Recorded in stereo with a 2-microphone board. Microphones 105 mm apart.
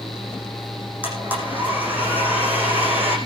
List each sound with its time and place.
1.0 s a blender: 20° right (ahead or behind), 9.5 m